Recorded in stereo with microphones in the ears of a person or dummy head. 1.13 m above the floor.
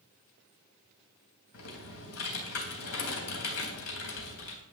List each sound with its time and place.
1.5 s typing on a keyboard: 75° left (ahead or behind), 3.5 m